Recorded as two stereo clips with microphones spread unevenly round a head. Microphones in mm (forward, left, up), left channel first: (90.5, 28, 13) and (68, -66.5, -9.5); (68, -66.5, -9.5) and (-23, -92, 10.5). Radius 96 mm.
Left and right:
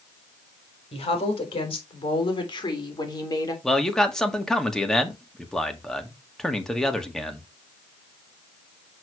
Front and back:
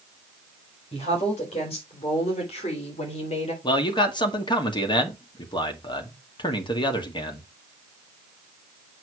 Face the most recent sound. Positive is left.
turn(degrees=-10)